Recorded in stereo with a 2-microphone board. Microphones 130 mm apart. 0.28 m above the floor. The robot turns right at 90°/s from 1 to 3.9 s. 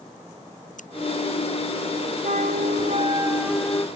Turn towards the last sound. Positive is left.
turn(degrees=30)